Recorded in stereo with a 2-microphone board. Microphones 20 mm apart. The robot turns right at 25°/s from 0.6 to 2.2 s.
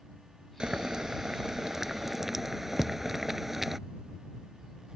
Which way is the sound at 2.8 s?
35° left (ahead or behind).